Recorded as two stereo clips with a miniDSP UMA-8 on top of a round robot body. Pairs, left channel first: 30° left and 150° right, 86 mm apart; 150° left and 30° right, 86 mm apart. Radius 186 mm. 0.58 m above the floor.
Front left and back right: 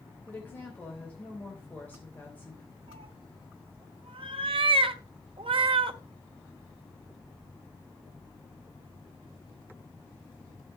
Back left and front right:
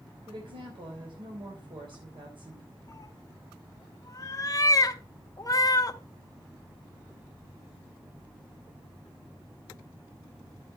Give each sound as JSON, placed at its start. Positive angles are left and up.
{"t": 0.3, "sound": "a woman speaking", "azimuth_deg": -40, "distance_m": 3.5}
{"t": 2.9, "sound": "a cat meowing", "azimuth_deg": -160, "distance_m": 0.9}